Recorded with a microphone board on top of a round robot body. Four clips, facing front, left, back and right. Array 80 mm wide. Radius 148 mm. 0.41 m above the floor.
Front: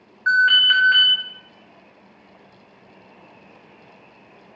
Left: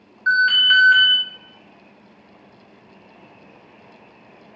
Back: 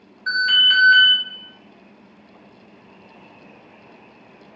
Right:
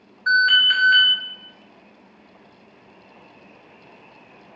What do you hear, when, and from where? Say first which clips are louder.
0.3 s an alarm: left 1 dB, front 4 dB; 15° left, 4 m